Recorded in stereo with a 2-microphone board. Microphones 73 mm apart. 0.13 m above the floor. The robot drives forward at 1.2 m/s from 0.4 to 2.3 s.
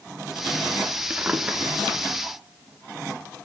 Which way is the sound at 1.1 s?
20° right (ahead or behind).